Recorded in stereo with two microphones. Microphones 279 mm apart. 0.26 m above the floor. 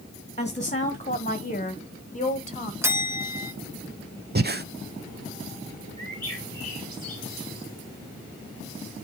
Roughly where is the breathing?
Right.